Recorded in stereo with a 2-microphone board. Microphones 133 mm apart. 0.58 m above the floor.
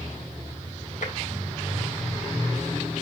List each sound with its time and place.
1.0 s tapping: 70° left (ahead or behind), 3.5 m